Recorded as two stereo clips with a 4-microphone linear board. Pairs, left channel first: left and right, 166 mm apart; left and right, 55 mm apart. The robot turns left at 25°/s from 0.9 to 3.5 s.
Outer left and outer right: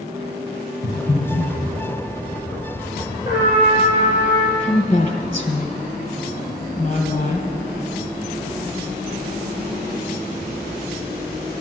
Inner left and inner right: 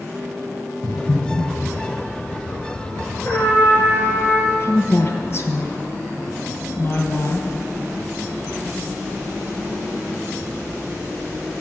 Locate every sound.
0.8 s breathing: 65° left (ahead or behind), 4 m
3.2 s a trumpet: 50° left (ahead or behind), 5.5 m; by 4.5 s 40° left (ahead or behind), 5.5 m
4.6 s a woman speaking: 40° left (ahead or behind), 2.5 m